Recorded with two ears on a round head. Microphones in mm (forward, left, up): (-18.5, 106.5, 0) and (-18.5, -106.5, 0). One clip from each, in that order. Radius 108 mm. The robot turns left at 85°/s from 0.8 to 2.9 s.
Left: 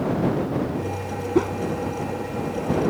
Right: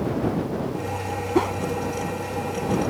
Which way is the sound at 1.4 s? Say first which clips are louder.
Even; 25° right (ahead or behind).